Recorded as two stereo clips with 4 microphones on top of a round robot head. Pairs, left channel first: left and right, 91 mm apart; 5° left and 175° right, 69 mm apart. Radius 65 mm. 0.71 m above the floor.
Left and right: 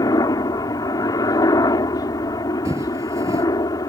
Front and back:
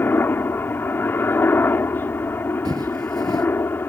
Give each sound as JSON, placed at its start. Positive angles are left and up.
{"t": 0.0, "sound": "a helicopter", "azimuth_deg": 55}
{"t": 2.6, "sound": "footsteps", "azimuth_deg": -150}